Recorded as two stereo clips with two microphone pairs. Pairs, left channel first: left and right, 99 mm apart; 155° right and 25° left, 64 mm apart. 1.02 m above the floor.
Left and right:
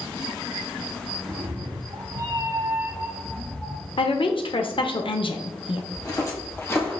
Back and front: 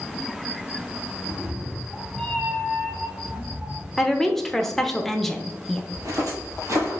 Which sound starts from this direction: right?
A cat meowing, at 1.3 s.